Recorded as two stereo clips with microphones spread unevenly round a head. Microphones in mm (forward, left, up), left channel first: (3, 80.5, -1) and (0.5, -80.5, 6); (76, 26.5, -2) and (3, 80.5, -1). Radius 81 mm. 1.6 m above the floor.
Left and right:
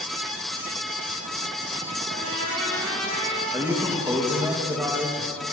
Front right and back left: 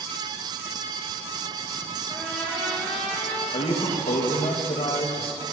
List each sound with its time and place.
2.1 s a trumpet: 115° right, 7.5 m
3.5 s a man speaking: 15° right, 2.5 m